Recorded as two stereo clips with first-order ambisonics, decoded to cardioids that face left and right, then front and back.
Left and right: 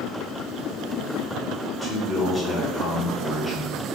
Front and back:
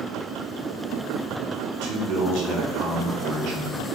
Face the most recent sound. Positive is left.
turn(degrees=170)